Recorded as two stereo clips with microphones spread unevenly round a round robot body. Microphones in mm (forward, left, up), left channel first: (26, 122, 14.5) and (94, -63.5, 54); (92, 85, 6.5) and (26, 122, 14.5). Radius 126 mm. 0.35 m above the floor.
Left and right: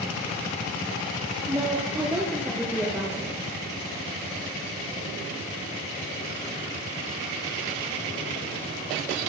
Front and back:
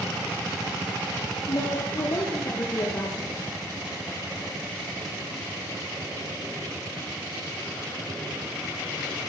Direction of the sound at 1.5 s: 5° left.